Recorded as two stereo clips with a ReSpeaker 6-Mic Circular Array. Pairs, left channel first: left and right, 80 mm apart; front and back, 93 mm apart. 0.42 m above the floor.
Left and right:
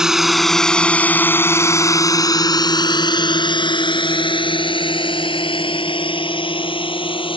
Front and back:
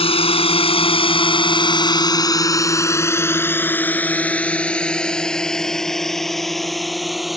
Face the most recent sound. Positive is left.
turn(degrees=90)